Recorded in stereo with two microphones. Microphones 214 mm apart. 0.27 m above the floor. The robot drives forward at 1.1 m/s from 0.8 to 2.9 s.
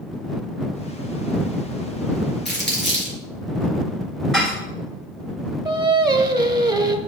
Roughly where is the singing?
Centre.